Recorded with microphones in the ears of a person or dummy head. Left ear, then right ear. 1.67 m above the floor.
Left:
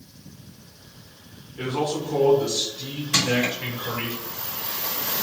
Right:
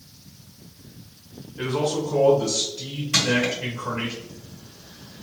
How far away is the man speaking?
About 0.6 m.